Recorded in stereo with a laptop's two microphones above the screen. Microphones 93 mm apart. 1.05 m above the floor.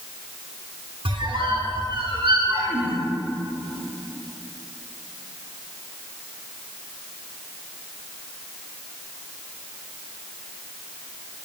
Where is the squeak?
65° right (ahead or behind), 1.0 m.